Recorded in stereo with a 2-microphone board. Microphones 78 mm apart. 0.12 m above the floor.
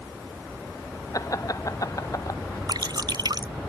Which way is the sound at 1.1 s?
45° left (ahead or behind).